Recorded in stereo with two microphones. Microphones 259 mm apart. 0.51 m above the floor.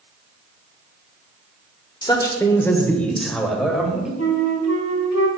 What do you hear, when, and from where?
2.0 s a man speaking: 15° left (ahead or behind), 1.4 m; by 4.1 s 5° right (ahead or behind), 2.5 m
4.2 s a flute: 75° left (ahead or behind), 1.2 m